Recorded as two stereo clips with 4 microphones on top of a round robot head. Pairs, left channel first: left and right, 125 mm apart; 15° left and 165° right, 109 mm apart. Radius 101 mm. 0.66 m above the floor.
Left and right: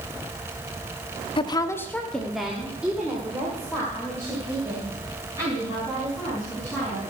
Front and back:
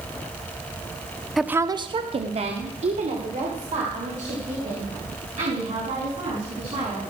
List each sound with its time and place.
1.4 s a woman speaking: 105° left, 0.6 m; by 7.0 s 160° right, 6 m